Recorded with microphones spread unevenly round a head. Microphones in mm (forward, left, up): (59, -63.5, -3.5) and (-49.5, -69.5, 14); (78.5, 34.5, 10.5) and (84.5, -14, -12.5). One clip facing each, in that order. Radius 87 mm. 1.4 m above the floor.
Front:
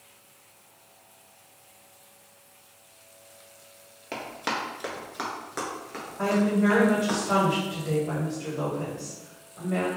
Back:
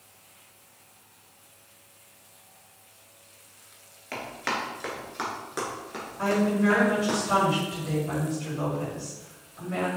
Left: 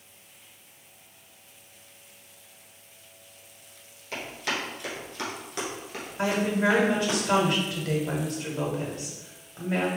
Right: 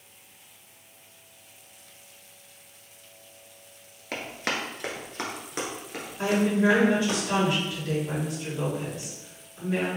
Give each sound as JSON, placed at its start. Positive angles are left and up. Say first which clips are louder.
{"t": 4.1, "sound": "running footsteps", "louder": "even, right 1 dB", "azimuth_deg": -50, "distance_m": 1.5}
{"t": 6.2, "sound": "a woman speaking", "louder": "front 1 dB, right 2 dB", "azimuth_deg": 65, "distance_m": 1.8}